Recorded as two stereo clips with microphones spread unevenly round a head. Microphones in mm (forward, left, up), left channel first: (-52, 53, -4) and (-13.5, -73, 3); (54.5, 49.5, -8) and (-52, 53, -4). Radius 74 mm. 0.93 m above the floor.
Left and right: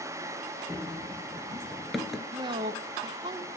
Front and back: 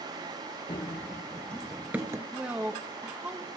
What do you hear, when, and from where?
0.7 s running footsteps: 10° left, 1.1 m; by 2.2 s 160° right, 1.0 m
2.3 s a woman speaking: 105° right, 0.8 m